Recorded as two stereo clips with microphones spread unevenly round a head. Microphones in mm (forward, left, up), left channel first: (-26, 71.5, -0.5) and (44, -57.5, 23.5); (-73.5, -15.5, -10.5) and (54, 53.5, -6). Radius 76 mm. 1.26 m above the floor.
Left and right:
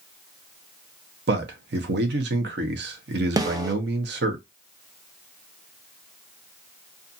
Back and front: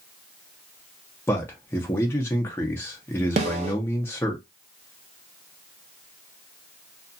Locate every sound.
1.3 s a man speaking: 75° right, 0.8 m
3.4 s a snare drum: 5° left, 0.6 m